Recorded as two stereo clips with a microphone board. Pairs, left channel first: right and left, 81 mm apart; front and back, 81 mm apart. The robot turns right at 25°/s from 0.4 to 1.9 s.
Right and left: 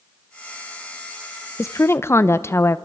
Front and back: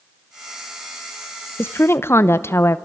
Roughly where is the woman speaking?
Ahead right.